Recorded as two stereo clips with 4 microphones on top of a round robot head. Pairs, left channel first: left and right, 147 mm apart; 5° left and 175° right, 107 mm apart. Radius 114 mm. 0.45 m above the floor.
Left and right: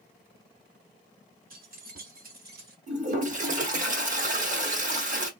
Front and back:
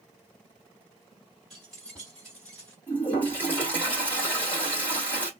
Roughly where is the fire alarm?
I don't hear a fire alarm.